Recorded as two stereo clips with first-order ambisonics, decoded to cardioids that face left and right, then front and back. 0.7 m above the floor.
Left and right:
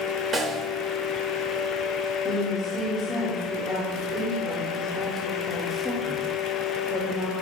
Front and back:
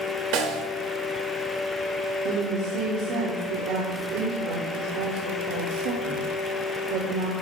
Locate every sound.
0.3 s a snare drum: 160° right, 1.7 m
2.2 s a woman speaking: 170° left, 1.7 m